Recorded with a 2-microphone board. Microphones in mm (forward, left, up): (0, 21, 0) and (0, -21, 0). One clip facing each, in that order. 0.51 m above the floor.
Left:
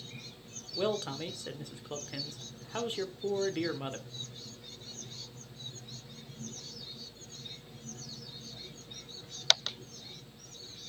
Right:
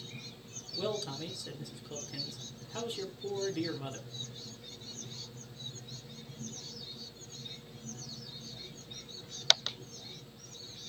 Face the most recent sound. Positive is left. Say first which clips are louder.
# left 4 dB
turn(degrees=50)  # may be behind; listen again after turning